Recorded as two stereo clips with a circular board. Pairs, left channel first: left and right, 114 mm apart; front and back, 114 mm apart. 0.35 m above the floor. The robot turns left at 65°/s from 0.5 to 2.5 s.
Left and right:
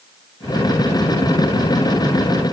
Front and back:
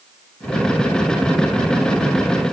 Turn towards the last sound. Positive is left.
No sound to turn to.